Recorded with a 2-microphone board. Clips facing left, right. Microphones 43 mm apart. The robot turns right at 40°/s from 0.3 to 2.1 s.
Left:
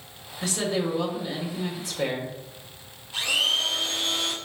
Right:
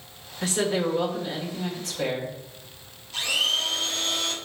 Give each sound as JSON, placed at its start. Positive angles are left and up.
{"t": 0.4, "sound": "a woman speaking", "azimuth_deg": -45, "distance_m": 1.6}
{"t": 3.1, "sound": "a blender", "side_deg": 20, "distance_m": 1.0}